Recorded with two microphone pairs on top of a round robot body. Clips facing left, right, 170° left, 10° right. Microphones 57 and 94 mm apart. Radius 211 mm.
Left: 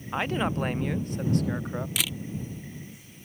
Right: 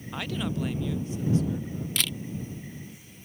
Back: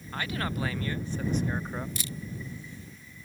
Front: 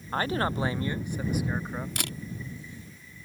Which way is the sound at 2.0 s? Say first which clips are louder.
Right 3 dB, front 3 dB; 5° left.